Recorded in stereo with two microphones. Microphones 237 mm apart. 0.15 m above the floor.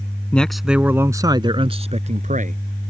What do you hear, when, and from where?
0.3 s a man speaking: 5° left (ahead or behind); by 2.6 s 35° right (ahead or behind)